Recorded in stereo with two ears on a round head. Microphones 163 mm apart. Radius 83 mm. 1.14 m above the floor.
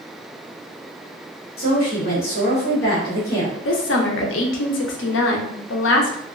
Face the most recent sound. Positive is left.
turn(degrees=80)